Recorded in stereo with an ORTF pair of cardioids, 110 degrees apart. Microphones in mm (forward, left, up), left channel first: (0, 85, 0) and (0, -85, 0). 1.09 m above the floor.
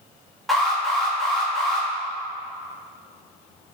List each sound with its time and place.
0.5 s an alarm: straight ahead, 2.5 m